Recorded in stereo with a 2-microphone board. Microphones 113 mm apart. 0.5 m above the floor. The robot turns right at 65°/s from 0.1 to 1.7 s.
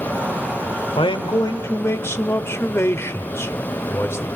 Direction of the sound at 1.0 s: 105° left.